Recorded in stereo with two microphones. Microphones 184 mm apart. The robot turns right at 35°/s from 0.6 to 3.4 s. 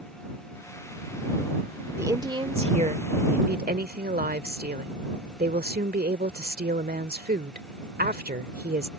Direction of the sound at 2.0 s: 165° right.